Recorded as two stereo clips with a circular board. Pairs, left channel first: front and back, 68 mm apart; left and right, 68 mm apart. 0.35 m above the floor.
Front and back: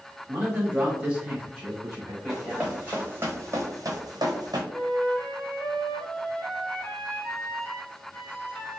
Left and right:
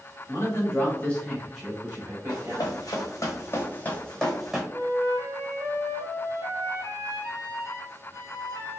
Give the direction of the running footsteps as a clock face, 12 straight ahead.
9 o'clock.